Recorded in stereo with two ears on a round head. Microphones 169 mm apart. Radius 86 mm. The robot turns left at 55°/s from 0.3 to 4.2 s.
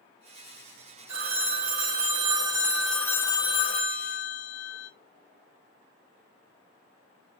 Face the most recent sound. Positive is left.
turn(degrees=105)